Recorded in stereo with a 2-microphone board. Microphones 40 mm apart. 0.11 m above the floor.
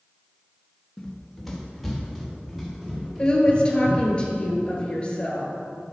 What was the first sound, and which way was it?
Running footsteps, 10° left (ahead or behind).